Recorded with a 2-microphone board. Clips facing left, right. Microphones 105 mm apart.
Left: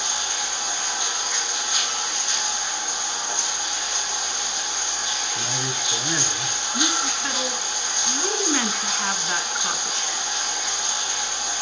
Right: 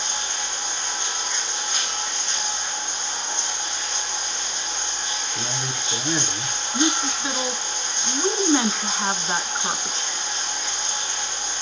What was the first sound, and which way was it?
Running water, 15° left (ahead or behind).